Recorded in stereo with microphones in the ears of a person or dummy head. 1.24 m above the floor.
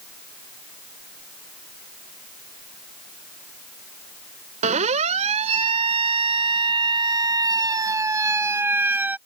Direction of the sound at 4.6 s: 40° right (ahead or behind).